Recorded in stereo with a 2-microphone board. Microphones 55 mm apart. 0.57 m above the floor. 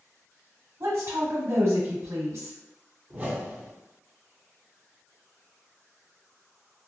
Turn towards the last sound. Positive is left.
turn(degrees=-30)  # may be behind; listen again after turning